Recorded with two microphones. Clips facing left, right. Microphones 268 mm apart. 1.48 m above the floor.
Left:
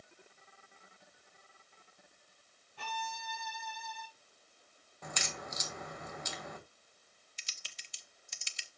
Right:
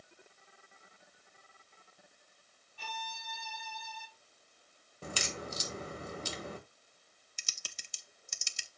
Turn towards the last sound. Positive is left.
turn(degrees=-50)  # may be behind; listen again after turning